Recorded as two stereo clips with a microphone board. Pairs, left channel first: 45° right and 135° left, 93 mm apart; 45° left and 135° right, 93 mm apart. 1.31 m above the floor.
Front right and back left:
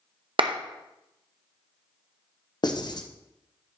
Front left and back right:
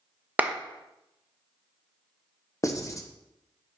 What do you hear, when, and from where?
0.4 s a clap: 155° left, 0.9 m
2.6 s writing: 10° right, 1.0 m